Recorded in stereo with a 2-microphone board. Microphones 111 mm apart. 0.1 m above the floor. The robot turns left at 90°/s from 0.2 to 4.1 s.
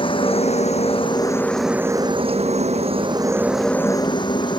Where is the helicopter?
50° left (ahead or behind); by 4.6 s 45° left (ahead or behind).